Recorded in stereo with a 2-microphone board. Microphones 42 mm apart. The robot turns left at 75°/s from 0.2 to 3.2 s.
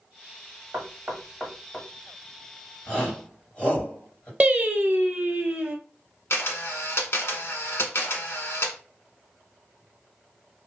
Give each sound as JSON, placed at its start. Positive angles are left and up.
{"t": 0.7, "sound": "knocking", "side_deg": -40, "distance_m": 1.2}
{"t": 2.9, "sound": "a shout", "side_deg": 20, "distance_m": 1.9}
{"t": 4.4, "sound": "singing", "side_deg": -35, "distance_m": 0.6}
{"t": 6.3, "sound": "a camera shutter", "side_deg": 75, "distance_m": 0.8}